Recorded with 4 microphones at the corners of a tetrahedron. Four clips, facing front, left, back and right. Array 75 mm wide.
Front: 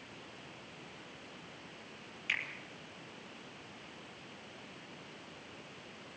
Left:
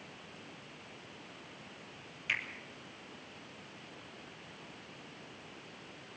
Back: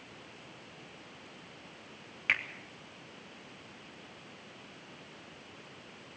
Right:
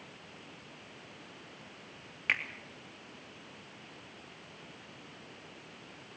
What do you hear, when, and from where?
2.3 s a finger snap: 135° right, 3.5 m